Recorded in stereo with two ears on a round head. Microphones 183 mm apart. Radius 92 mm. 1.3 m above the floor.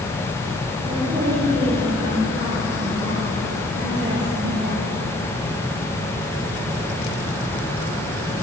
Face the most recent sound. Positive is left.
turn(degrees=-50)  # may be behind; listen again after turning